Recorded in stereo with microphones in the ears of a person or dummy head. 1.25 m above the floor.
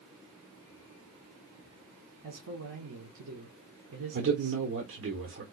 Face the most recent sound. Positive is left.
turn(degrees=-60)  # may be behind; listen again after turning